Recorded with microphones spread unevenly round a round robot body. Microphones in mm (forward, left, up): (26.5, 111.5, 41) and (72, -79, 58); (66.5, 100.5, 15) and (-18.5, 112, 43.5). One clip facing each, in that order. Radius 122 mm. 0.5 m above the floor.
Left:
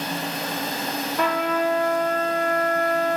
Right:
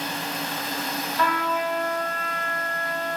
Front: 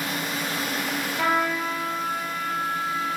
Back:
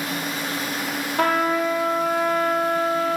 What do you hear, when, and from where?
1.2 s a trumpet: 155° left, 3 m